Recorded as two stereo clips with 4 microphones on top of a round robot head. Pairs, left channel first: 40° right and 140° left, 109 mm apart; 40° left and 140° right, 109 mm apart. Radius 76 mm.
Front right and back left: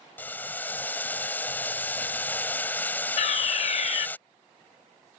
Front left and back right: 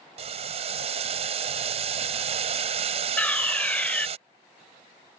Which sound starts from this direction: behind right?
Boiling, at 0.2 s.